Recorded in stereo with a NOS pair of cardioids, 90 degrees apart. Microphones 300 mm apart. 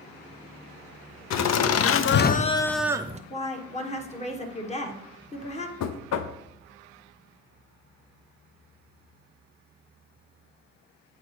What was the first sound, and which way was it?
Laughter, 65° left.